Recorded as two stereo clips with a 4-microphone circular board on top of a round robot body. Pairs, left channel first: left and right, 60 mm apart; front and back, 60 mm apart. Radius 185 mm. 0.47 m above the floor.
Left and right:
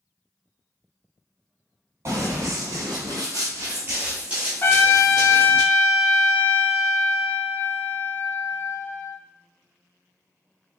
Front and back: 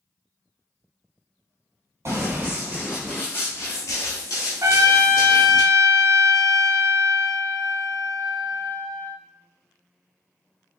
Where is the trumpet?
145° left, 0.5 m.